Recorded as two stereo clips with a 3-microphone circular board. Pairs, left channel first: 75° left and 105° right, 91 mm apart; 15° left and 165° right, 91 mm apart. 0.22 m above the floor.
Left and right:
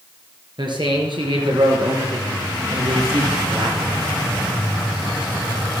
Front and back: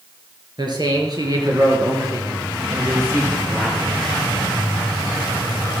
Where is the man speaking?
130° right, 4 m; by 3.9 s 95° right, 5 m.